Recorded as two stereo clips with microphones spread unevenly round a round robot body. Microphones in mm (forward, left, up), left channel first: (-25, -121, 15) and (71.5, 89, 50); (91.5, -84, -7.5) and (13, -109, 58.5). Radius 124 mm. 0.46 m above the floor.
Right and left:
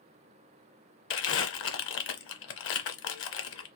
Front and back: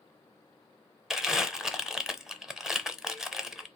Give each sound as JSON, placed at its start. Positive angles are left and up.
{"t": 1.1, "sound": "crumpling", "azimuth_deg": -80, "distance_m": 0.8}